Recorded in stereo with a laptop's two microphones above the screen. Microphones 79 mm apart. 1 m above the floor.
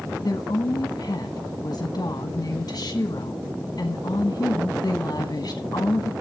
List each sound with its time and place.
0.2 s a woman speaking: 55° left (ahead or behind), 1.1 m